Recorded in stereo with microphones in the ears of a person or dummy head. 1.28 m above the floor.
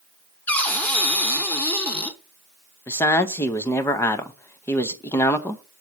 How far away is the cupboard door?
About 0.7 m.